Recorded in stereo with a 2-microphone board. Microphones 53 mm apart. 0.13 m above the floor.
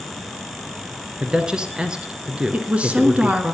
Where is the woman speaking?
25° right (ahead or behind), 1.5 m.